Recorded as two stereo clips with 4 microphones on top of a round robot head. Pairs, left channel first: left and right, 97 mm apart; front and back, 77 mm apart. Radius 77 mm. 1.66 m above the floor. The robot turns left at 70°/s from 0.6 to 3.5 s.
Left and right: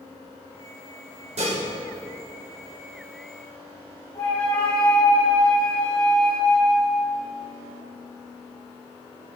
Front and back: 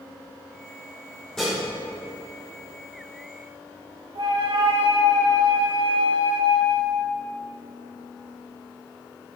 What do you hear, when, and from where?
1.4 s dishes clattering: 85° right, 4.5 m; by 1.6 s 100° right, 4.5 m
4.2 s a flute: 165° left, 3.5 m